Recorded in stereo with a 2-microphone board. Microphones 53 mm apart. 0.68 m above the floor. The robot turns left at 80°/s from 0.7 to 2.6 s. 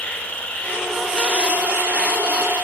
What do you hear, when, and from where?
0.0 s an insect: 30° left, 1.1 m; by 2.6 s 125° right, 1.1 m